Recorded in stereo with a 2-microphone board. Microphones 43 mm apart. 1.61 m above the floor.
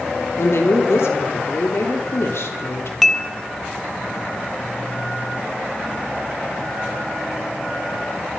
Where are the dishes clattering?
5° left (ahead or behind), 0.8 m.